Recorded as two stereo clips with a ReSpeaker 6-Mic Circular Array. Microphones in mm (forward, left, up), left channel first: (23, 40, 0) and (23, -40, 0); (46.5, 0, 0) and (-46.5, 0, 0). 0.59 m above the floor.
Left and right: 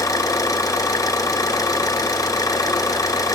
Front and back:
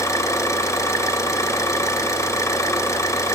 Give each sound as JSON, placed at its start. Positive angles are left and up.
{"t": 0.0, "sound": "an engine running", "azimuth_deg": 55, "distance_m": 2.5}